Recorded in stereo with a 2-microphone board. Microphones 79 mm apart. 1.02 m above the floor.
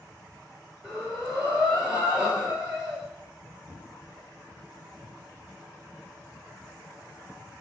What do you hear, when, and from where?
0.8 s breathing: 5° right (ahead or behind), 1.5 m